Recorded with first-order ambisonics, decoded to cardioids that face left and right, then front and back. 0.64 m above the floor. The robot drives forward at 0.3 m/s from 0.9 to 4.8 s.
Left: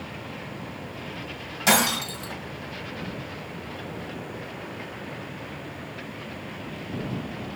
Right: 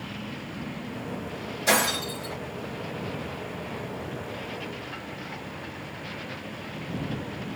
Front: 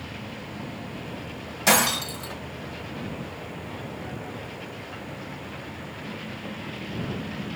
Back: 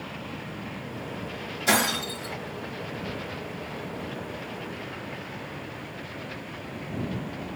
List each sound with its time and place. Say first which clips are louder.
1.7 s breaking glass: left 2 dB, front 3 dB; 40° left, 3 m; by 2.3 s 45° left, 3 m